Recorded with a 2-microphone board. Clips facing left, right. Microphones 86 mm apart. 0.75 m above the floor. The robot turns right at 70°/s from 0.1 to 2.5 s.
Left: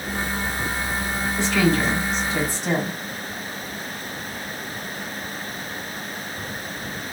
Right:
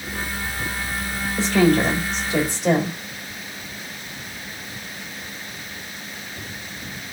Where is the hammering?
I don't hear hammering.